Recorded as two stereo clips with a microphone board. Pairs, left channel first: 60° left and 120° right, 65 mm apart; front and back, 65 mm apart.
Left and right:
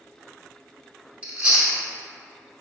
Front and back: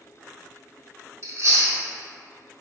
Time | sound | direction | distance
1.2 | chewing | 175° left | 1.1 m